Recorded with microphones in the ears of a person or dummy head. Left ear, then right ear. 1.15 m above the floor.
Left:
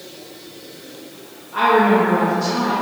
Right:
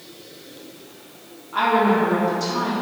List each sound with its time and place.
1.5 s a woman speaking: 45° right (ahead or behind), 1.8 m